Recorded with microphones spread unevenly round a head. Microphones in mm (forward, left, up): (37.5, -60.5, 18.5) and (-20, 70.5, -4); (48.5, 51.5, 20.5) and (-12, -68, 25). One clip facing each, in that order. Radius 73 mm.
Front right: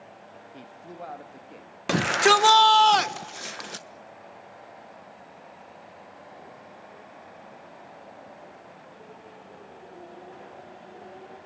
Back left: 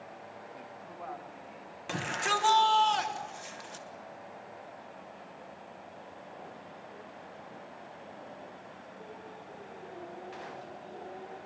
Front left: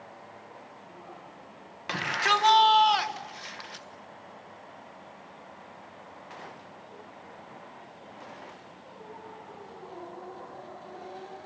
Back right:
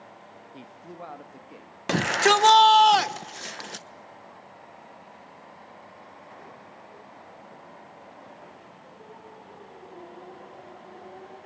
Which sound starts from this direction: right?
A shout, at 1.9 s.